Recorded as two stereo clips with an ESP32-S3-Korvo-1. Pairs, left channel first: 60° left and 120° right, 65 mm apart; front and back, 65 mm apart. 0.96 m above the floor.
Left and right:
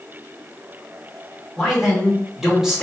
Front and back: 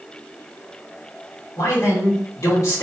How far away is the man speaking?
About 2.5 m.